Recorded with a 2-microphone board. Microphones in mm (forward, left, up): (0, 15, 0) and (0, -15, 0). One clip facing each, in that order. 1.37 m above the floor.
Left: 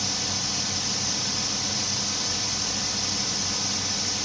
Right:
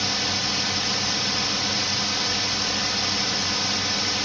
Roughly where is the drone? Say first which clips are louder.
Right 5 dB; right.